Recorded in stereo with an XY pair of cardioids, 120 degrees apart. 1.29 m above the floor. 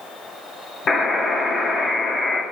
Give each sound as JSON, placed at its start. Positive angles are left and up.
{"t": 0.9, "sound": "a buzzer", "azimuth_deg": 40, "distance_m": 2.0}